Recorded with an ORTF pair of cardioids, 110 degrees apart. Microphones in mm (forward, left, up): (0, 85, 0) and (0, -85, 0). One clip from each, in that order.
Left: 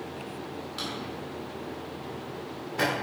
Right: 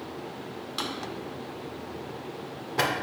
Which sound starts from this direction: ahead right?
A drawer, at 0.8 s.